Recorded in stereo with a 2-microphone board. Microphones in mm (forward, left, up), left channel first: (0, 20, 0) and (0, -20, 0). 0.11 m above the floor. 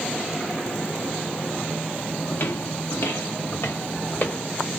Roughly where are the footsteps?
Left.